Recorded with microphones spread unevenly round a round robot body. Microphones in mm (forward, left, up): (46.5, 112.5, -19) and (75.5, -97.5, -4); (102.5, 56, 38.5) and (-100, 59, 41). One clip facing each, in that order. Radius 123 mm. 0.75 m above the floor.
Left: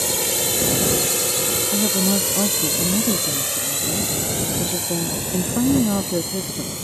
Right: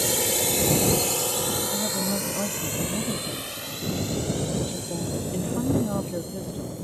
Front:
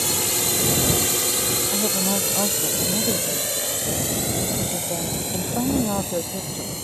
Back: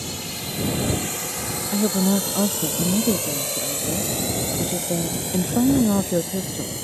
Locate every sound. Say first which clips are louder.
0.0 s a drone: left 1 dB, front 5 dB; straight ahead; by 6.8 s 100° left
1.7 s a woman speaking: left 7 dB, back 8 dB; 125° left